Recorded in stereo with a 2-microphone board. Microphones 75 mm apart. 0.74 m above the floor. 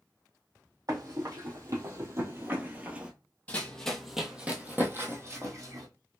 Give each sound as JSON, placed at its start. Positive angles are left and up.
{"t": 0.9, "sound": "running footsteps", "side_deg": -55, "distance_m": 1.8}
{"t": 3.5, "sound": "running footsteps", "side_deg": 20, "distance_m": 0.9}